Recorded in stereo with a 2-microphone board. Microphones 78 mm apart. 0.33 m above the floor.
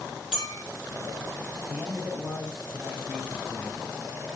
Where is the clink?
5° right (ahead or behind), 7 m.